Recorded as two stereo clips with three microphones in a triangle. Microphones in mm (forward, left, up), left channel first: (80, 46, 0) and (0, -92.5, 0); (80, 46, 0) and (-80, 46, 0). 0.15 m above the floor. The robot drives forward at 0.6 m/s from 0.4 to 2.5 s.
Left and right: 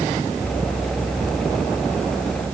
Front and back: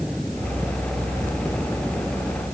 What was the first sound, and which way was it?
Only background noise.